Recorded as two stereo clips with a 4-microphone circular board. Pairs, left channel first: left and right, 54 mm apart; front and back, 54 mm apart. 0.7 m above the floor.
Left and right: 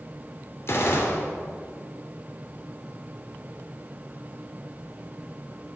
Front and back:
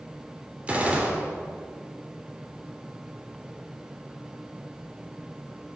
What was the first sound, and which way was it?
A gunshot, 115° left.